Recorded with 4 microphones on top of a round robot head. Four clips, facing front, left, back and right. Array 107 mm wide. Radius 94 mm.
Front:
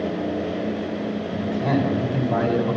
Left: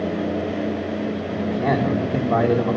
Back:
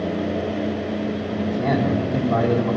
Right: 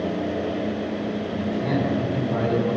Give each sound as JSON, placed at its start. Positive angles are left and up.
{"t": 1.3, "sound": "a man speaking", "azimuth_deg": 110, "distance_m": 3.5}